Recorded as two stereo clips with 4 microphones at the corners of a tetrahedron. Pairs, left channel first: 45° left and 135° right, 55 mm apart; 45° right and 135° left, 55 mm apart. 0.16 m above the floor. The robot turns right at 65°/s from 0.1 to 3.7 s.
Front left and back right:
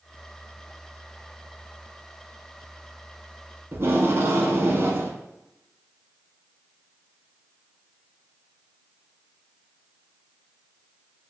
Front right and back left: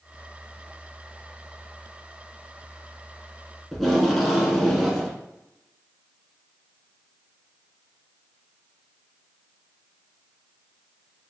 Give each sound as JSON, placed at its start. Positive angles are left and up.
{"t": 3.7, "sound": "tape being pulled", "azimuth_deg": -130, "distance_m": 0.7}